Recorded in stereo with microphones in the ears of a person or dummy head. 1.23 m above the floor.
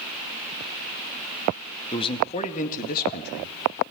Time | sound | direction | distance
1.9 | a man speaking | 25° left (ahead or behind) | 2 m